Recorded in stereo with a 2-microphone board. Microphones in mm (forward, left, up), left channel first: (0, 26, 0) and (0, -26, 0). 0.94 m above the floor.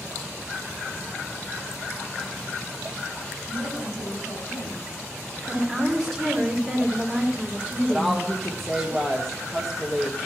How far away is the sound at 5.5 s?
About 2.5 m.